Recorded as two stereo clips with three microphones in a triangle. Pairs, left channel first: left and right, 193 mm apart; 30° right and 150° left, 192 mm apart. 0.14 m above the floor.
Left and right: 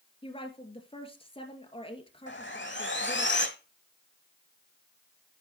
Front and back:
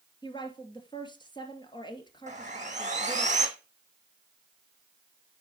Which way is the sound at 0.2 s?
35° left.